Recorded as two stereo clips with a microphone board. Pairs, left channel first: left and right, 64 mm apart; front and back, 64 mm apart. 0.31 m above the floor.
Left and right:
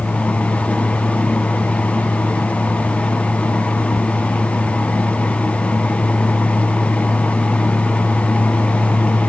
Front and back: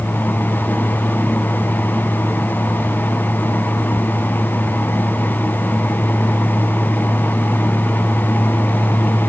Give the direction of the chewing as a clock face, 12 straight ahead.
I don't hear chewing.